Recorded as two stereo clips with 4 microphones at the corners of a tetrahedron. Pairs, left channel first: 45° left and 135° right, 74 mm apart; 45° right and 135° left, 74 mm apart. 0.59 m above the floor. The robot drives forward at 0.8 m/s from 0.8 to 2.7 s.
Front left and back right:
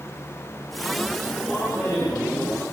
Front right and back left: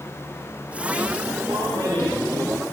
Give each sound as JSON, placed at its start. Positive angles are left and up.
{"t": 1.5, "sound": "a man speaking", "azimuth_deg": 120, "distance_m": 7.5}